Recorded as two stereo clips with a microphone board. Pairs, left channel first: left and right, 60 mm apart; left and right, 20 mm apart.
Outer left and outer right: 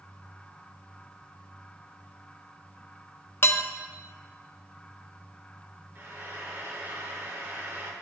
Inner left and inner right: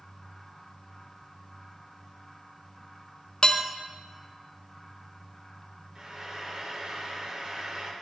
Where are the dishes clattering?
40° left (ahead or behind), 0.7 m.